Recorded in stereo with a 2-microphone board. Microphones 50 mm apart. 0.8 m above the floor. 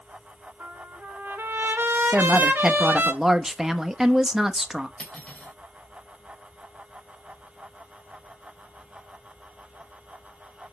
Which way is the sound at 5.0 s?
25° left (ahead or behind).